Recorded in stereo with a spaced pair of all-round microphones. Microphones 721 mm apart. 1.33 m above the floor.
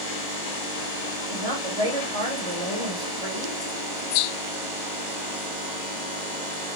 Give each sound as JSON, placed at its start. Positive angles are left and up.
{"t": 1.3, "sound": "a woman speaking", "side_deg": -60, "distance_m": 2.0}